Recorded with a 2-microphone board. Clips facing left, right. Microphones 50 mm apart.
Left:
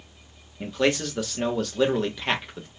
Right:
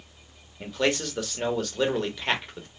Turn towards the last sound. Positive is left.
turn(degrees=0)  # may be behind; listen again after turning